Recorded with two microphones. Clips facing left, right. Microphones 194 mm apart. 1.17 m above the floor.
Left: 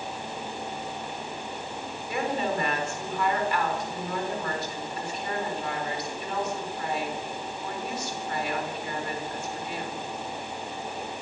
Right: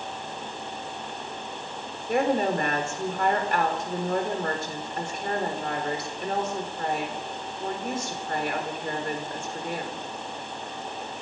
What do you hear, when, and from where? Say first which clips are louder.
2.1 s a woman speaking: right 5 dB; 50° right (ahead or behind), 3.5 m